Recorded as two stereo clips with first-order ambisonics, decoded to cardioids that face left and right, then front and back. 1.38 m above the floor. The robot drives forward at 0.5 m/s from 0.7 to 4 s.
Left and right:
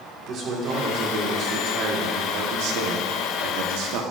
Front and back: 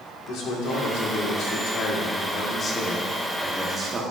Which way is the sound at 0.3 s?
35° right.